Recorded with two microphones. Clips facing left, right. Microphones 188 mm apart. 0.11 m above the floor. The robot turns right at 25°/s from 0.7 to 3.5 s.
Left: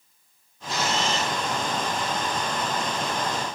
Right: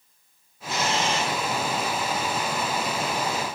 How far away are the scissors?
No scissors in this recording.